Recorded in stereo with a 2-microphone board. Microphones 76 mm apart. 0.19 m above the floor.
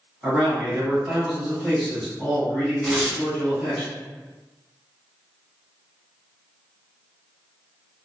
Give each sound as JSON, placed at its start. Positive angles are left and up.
{"t": 0.2, "sound": "a man speaking", "side_deg": 0, "distance_m": 1.6}
{"t": 2.8, "sound": "tearing paper", "side_deg": 0, "distance_m": 0.6}